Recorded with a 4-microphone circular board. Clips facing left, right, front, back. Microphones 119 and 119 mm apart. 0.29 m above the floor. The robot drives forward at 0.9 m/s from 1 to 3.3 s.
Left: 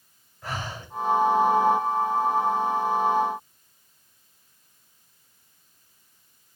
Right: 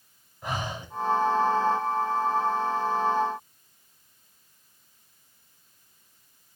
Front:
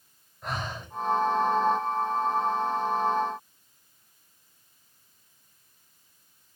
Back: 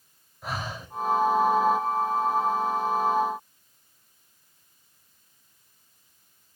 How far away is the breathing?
About 0.7 m.